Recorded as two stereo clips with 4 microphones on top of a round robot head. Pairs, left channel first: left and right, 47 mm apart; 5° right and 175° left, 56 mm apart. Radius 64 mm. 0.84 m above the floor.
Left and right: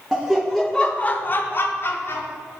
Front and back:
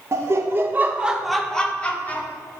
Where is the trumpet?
No trumpet in this recording.